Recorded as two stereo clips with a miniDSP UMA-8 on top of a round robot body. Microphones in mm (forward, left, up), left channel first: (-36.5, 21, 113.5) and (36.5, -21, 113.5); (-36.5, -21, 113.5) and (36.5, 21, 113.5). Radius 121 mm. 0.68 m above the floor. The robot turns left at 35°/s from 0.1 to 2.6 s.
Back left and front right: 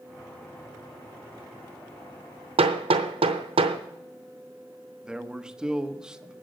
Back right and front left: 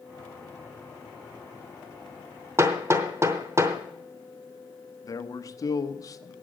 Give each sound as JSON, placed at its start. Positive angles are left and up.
{"t": 2.6, "sound": "hammering", "azimuth_deg": -30, "distance_m": 0.8}
{"t": 5.0, "sound": "a man speaking", "azimuth_deg": -110, "distance_m": 1.2}